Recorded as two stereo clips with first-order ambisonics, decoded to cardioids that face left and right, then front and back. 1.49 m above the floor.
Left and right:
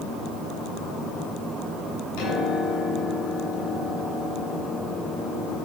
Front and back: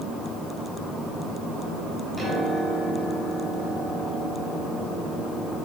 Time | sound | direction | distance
2.2 | a piano | 100° left | 9 m